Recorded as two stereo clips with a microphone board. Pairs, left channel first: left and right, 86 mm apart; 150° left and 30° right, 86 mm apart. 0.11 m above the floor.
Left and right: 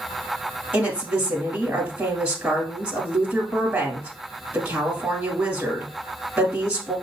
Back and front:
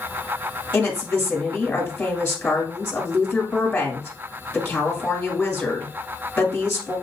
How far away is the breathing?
I don't hear breathing.